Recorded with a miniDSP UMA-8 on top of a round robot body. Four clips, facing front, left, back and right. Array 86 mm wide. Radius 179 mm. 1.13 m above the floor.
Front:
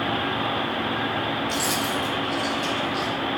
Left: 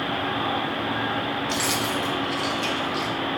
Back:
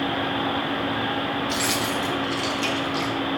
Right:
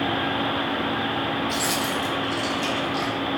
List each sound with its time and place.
1.5 s keys jangling: 140° left, 0.7 m; by 3.1 s straight behind, 1.5 m